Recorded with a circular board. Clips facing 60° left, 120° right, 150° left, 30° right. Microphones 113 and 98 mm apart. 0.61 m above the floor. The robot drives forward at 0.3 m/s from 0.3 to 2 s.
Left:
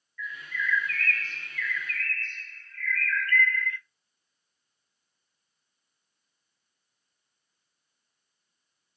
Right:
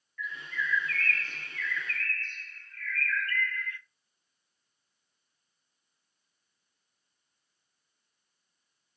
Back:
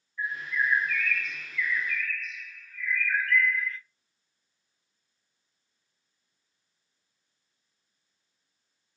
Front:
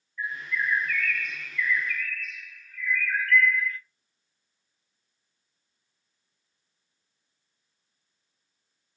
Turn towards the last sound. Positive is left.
turn(degrees=-165)